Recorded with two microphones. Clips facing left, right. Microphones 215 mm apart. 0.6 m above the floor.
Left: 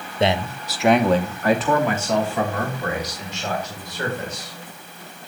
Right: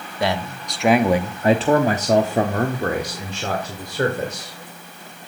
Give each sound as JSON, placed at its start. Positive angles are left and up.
{"t": 0.2, "sound": "a man speaking", "side_deg": 25, "distance_m": 0.7}